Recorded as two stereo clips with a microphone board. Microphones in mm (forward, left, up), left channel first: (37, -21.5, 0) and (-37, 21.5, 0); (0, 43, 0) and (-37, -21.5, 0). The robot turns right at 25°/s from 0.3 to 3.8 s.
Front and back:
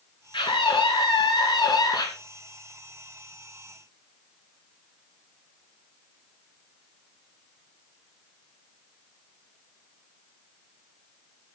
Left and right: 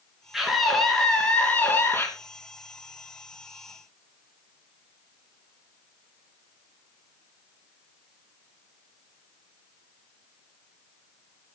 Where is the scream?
35° right, 3 m; by 2.1 s 5° left, 3 m.